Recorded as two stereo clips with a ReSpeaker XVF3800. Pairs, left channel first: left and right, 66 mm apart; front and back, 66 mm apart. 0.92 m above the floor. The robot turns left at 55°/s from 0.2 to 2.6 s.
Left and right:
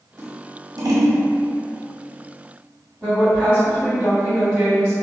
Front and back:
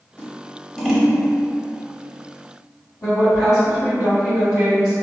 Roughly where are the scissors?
Ahead right.